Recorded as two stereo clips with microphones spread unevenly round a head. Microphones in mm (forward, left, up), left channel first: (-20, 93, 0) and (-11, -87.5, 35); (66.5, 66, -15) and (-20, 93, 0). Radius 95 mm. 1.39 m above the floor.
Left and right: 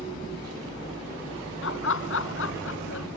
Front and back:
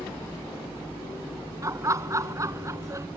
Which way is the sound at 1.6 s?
110° left.